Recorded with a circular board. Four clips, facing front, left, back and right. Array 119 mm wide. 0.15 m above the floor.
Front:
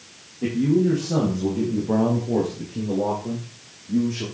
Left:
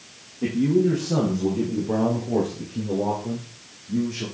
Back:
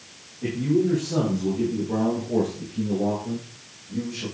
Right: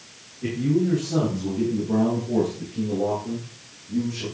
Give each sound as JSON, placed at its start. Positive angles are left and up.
{"t": 0.4, "sound": "a man speaking", "azimuth_deg": 50, "distance_m": 5.0}